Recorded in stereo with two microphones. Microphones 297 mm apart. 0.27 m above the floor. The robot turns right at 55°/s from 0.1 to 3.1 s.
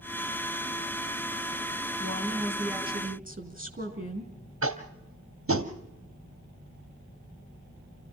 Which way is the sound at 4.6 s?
45° right (ahead or behind).